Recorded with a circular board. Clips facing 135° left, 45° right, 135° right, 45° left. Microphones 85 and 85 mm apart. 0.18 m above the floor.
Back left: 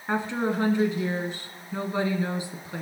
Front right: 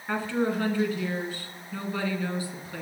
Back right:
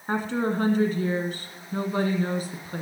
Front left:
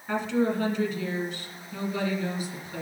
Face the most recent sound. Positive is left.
turn(degrees=-165)